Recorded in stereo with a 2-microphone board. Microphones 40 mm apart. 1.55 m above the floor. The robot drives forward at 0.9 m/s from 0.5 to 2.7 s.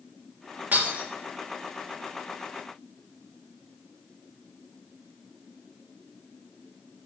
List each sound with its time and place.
0.7 s breaking glass: 45° right (ahead or behind), 1.9 m; by 1.0 s 40° right (ahead or behind), 2 m